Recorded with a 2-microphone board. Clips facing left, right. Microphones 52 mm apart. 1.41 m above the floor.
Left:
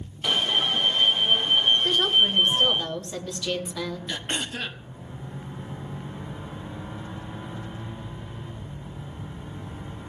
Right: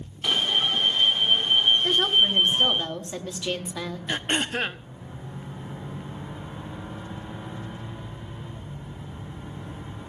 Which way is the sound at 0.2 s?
Centre (ahead or behind).